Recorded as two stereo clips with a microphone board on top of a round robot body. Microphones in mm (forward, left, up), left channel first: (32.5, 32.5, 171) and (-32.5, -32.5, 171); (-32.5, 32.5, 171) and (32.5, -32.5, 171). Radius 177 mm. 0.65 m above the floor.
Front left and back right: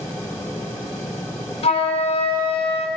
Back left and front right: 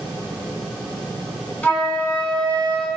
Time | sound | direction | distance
1.6 | a flute | 60° left | 0.6 m